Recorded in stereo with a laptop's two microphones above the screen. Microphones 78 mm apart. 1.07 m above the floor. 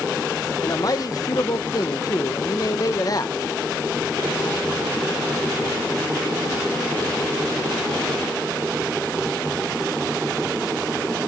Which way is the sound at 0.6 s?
50° left (ahead or behind).